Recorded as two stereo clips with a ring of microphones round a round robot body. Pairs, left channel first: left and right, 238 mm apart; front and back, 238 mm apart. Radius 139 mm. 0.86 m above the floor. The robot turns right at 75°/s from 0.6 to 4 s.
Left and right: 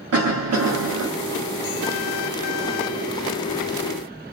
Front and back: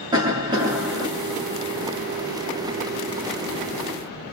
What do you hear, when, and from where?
0.1 s a cough: 110° right, 0.7 m; by 1.1 s 75° right, 0.7 m